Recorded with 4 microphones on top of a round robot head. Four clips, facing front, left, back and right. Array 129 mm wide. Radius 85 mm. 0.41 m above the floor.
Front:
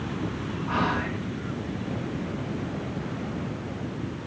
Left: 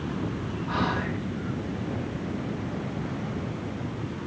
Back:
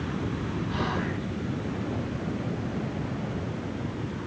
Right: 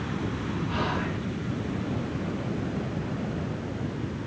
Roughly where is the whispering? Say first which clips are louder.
Left 4 dB, front 5 dB; ahead left.